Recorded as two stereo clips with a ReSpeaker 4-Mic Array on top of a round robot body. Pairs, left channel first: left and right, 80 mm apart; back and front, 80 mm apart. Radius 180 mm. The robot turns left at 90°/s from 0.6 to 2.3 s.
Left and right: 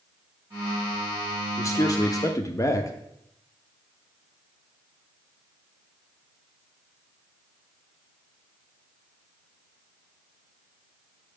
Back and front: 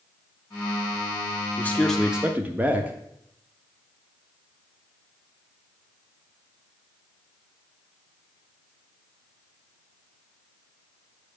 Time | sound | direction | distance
1.6 | a man speaking | 130° left | 1.0 m